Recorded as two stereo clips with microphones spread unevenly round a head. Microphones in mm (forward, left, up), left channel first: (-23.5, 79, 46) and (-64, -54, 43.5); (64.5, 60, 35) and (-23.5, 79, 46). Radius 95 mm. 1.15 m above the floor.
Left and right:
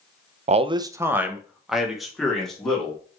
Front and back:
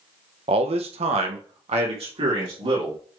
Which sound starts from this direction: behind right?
A man speaking, at 0.5 s.